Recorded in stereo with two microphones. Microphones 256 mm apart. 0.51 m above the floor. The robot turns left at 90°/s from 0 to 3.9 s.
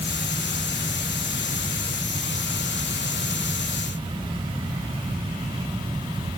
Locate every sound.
Only background noise.